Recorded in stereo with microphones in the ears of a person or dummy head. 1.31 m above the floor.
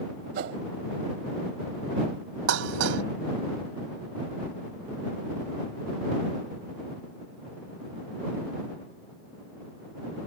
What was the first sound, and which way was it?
A whoosh, 50° right (ahead or behind).